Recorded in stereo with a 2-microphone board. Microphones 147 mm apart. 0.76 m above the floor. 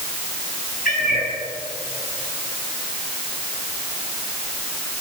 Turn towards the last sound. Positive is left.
turn(degrees=90)